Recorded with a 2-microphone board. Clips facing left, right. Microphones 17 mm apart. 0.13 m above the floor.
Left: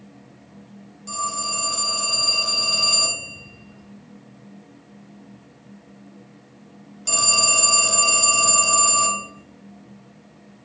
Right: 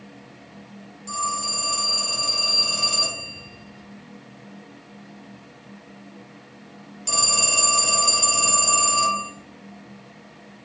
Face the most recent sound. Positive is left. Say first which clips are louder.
# right 1 dB
turn(degrees=10)  # may be behind; listen again after turning